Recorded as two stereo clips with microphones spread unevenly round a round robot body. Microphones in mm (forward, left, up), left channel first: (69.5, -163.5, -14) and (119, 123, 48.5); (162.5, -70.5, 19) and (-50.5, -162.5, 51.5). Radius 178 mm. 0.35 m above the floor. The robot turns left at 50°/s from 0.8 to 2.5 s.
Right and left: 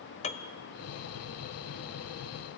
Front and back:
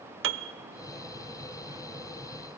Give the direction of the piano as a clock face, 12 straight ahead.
5 o'clock.